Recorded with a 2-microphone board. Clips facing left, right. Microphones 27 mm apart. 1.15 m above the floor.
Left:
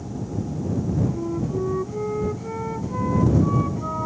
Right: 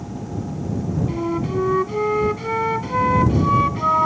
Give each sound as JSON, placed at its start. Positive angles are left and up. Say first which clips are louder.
{"t": 1.1, "sound": "a flute", "louder": "right 3 dB", "side_deg": -80}